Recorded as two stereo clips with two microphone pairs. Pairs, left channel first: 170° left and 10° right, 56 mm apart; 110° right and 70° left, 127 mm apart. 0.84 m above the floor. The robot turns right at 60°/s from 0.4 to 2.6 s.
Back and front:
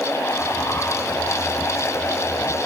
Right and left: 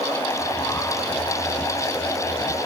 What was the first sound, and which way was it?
Only background noise.